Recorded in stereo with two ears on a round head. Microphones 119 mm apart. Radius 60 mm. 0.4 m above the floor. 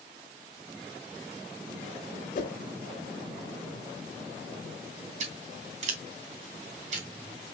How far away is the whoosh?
About 0.8 m.